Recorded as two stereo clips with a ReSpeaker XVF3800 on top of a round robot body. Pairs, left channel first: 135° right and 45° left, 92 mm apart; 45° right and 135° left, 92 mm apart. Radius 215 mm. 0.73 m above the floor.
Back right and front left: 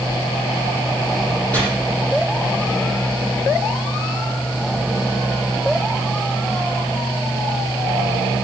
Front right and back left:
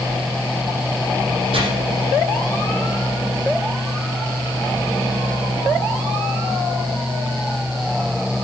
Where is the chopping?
150° left, 6.5 m.